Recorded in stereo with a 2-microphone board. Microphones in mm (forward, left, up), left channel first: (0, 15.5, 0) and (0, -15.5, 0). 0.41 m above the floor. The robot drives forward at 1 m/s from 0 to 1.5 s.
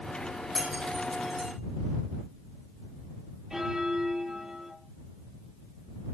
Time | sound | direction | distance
0.6 | breaking glass | 5° left (ahead or behind) | 9 m
3.5 | a bell | 5° right (ahead or behind) | 9 m